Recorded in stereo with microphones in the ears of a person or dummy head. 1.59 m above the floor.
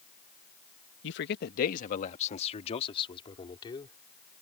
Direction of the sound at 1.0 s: 70° left (ahead or behind).